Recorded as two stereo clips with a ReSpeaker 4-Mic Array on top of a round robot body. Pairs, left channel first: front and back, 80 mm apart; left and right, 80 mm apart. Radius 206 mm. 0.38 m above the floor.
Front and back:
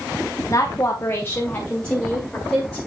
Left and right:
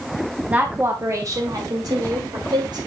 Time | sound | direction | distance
0.5 | a woman speaking | 25° right | 1.3 m